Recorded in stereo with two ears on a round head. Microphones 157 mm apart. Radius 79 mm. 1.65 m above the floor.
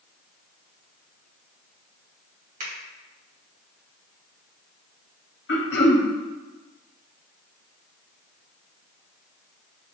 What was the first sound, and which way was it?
A finger snap, 50° right (ahead or behind).